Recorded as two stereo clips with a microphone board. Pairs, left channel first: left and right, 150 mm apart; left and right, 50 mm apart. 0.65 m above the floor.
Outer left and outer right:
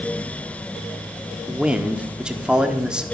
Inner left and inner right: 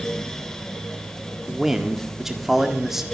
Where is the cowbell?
I don't hear a cowbell.